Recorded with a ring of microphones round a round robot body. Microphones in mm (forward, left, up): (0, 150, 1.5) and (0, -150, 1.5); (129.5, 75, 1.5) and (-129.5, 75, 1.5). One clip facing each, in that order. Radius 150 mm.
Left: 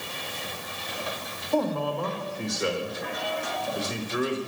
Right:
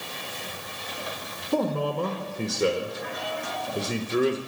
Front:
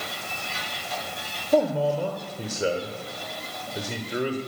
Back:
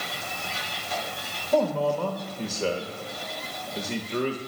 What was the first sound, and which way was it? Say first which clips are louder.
A man speaking: right 1 dB, front 2 dB; 70° right.